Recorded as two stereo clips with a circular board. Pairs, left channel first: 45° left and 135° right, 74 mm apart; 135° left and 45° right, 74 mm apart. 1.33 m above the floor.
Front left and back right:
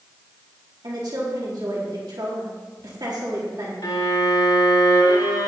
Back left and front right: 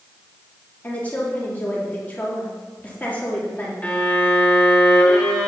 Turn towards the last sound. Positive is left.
turn(degrees=65)